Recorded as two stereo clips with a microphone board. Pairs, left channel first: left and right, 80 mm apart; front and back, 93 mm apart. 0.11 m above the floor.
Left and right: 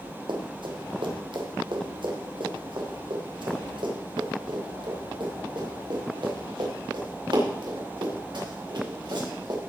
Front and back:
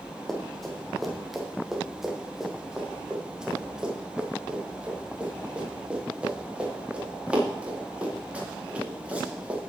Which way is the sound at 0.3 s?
85° right.